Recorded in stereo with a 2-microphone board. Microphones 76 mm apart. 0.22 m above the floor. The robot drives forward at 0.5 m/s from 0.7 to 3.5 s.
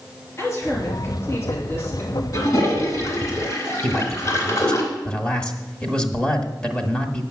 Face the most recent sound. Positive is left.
turn(degrees=15)  # may be behind; listen again after turning